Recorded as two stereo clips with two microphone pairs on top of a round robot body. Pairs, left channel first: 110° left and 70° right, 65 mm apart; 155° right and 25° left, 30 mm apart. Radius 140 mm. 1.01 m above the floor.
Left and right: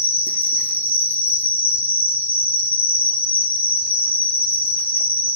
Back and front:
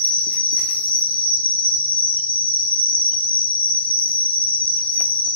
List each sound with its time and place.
0.0 s an insect: 175° left, 0.8 m